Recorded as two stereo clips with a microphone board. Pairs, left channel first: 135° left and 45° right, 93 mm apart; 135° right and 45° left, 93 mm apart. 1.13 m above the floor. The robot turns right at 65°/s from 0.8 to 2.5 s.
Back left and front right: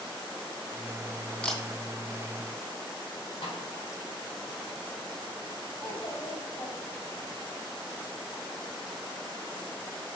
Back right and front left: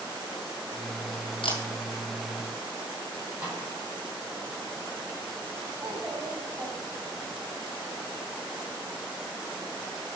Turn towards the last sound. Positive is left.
turn(degrees=110)